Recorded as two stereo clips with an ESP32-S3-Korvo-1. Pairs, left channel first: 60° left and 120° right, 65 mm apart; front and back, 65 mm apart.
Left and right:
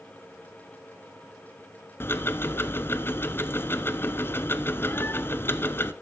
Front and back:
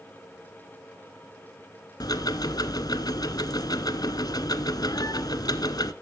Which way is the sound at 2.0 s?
5° left.